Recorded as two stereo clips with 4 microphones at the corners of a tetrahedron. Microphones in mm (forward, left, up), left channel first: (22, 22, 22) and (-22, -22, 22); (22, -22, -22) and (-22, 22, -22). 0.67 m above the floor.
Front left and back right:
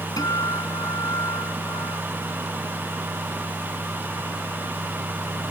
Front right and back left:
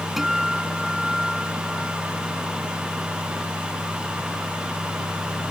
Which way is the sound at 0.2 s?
50° left.